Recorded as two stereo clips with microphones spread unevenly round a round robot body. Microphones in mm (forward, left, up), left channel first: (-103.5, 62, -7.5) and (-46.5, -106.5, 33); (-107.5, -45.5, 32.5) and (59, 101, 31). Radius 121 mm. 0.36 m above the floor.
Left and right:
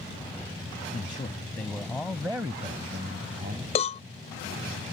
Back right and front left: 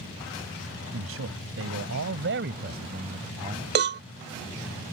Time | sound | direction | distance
0.9 | a man speaking | 50° left | ?
3.8 | a cowbell | 70° left | ?